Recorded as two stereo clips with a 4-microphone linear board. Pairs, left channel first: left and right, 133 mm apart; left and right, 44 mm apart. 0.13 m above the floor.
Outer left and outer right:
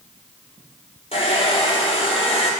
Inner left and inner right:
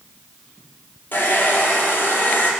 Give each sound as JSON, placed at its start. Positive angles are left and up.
{"t": 1.1, "sound": "a hair dryer", "side_deg": 45, "distance_m": 2.5}